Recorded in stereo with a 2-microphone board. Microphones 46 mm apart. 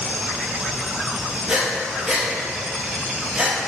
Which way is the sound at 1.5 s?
20° right (ahead or behind).